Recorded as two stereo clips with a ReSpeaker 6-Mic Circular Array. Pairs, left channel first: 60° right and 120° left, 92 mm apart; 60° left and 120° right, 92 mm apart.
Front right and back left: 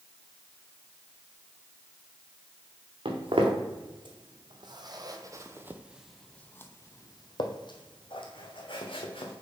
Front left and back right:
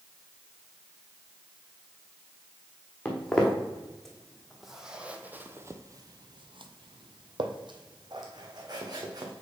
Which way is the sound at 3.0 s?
140° left.